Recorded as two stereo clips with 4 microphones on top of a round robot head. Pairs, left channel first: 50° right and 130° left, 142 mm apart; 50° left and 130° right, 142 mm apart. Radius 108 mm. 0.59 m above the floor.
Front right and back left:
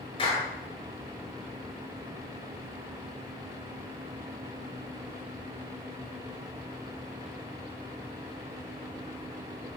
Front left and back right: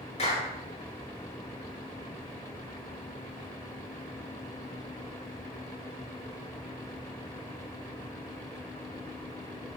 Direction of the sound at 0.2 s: 5° left.